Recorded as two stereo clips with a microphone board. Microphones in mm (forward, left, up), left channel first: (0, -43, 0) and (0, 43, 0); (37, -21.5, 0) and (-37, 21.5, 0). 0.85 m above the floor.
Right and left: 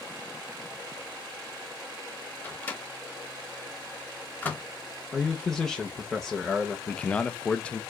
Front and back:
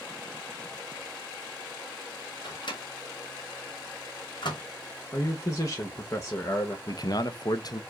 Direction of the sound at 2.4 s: 25° right.